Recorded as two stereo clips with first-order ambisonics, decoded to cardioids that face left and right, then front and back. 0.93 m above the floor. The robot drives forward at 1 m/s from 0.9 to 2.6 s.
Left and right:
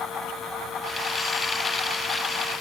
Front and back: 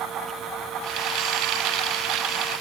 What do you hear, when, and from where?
Only background noise.